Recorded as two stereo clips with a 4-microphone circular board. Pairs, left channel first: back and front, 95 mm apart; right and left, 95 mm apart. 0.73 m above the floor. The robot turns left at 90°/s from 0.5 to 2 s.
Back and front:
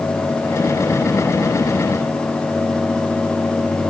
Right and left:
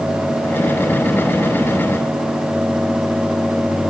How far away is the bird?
I don't hear a bird.